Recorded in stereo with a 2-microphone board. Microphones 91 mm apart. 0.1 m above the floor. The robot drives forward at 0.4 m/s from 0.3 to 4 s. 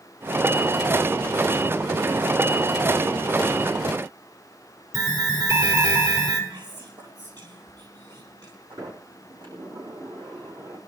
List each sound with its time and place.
4.9 s an alarm: 55° right (ahead or behind), 4.5 m
6.5 s whispering: 55° right (ahead or behind), 3 m
8.7 s a sliding door: 60° right (ahead or behind), 6.5 m